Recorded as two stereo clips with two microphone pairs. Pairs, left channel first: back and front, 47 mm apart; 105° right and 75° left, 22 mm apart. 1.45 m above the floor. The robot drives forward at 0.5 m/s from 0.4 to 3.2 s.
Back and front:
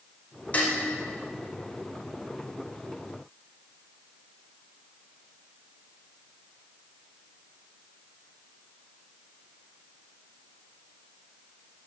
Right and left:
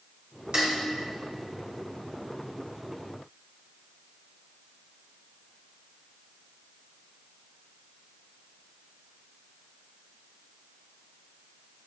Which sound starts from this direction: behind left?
Dishes clattering, at 0.5 s.